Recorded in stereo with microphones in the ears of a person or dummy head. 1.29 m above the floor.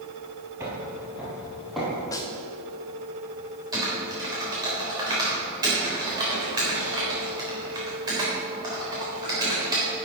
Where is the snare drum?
20° left (ahead or behind), 0.9 m.